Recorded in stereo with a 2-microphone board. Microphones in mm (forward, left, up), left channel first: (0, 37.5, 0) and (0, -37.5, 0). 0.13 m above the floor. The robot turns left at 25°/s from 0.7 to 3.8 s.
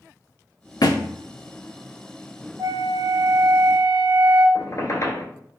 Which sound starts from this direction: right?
A flute, at 2.6 s.